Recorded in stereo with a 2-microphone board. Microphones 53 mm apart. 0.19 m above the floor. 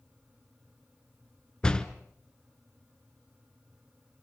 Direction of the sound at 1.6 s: 15° left (ahead or behind).